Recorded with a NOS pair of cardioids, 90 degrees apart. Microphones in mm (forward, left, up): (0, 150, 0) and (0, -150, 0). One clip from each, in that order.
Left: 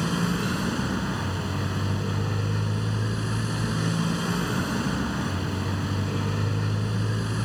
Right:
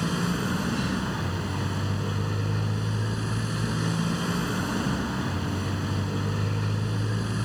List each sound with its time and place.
0.0 s a motorcycle: 5° left